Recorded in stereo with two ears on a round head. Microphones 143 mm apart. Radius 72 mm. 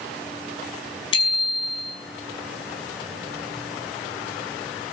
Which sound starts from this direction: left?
A bicycle bell, at 1.1 s.